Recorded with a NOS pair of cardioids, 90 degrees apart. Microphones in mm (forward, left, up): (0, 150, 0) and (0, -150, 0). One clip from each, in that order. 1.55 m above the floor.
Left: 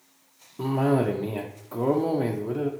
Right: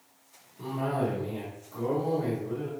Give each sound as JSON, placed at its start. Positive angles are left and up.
{"t": 0.6, "sound": "a cough", "azimuth_deg": 70, "distance_m": 0.6}